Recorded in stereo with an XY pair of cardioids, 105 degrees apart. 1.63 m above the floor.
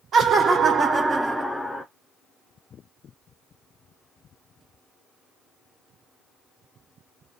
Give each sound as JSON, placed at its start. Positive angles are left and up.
{"t": 0.1, "sound": "laughter", "azimuth_deg": -60, "distance_m": 0.8}